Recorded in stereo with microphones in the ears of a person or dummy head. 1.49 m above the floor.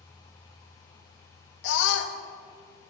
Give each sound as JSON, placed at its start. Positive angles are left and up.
{"t": 1.6, "sound": "a scream", "side_deg": 70, "distance_m": 1.2}